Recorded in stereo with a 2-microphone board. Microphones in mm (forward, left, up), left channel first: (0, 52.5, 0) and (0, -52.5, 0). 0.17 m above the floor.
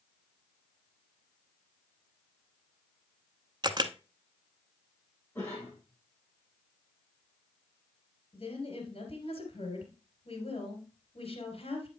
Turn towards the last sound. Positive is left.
turn(degrees=65)  # may be behind; listen again after turning